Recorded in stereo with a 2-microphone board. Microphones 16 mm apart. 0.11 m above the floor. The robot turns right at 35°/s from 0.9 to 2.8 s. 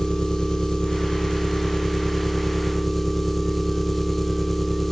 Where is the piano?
No piano in this recording.